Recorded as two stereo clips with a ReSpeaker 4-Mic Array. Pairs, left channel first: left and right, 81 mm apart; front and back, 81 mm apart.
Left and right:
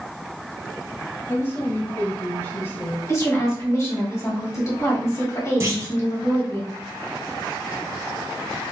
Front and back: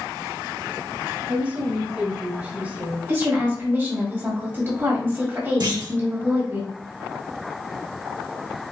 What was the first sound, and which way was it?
A woman speaking, 125° left.